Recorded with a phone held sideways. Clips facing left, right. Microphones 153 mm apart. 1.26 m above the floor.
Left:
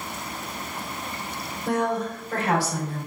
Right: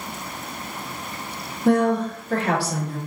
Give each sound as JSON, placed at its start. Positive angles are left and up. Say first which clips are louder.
{"t": 1.6, "sound": "a woman speaking", "louder": "right 6 dB", "side_deg": -70, "distance_m": 1.2}